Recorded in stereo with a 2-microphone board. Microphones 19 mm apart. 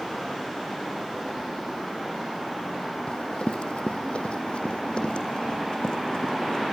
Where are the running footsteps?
60° left (ahead or behind), 2.5 m; by 6.6 s 45° left (ahead or behind), 5.5 m.